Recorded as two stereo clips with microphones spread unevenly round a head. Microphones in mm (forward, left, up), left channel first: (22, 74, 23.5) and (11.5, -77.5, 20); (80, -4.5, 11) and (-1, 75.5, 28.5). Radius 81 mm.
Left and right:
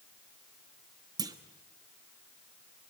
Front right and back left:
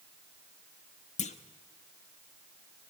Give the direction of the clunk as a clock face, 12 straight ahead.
1 o'clock.